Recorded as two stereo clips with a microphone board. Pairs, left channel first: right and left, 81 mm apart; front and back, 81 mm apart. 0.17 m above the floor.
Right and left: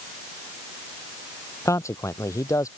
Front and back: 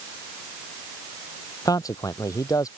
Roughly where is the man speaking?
Ahead right.